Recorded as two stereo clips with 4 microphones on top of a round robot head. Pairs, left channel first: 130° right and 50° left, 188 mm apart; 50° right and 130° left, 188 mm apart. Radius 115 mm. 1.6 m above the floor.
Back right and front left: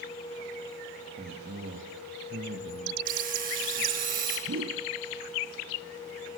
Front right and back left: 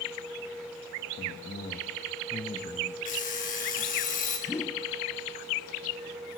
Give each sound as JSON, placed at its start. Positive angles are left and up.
{"t": 1.2, "sound": "a man speaking", "azimuth_deg": 0, "distance_m": 2.5}
{"t": 3.0, "sound": "an alarm clock", "azimuth_deg": 0, "distance_m": 7.0}
{"t": 4.5, "sound": "a whoosh", "azimuth_deg": 25, "distance_m": 0.7}